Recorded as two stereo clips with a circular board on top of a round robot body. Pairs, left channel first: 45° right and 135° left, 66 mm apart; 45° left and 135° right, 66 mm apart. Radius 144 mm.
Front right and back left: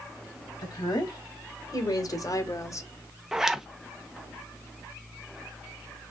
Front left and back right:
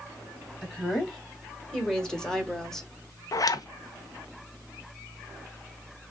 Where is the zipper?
55° left, 0.9 m.